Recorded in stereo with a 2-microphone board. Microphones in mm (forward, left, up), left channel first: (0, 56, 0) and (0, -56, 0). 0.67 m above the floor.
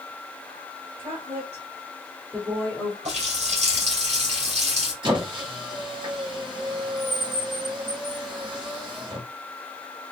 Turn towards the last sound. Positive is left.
turn(degrees=-45)  # may be behind; listen again after turning